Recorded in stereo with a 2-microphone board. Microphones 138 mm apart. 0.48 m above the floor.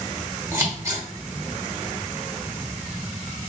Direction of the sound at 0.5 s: 20° right (ahead or behind).